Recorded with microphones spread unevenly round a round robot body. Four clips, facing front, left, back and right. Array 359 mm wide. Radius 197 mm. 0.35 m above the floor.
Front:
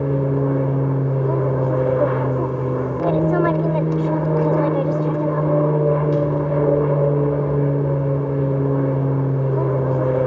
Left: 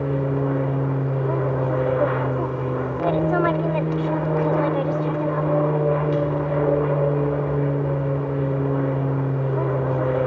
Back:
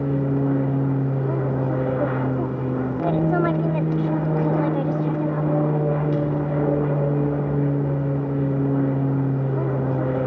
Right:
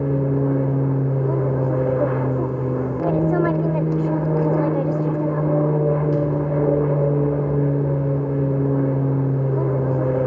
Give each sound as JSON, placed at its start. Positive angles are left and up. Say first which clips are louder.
{"t": 0.0, "sound": "an aircraft", "louder": "right 2 dB, front 2 dB", "azimuth_deg": -55}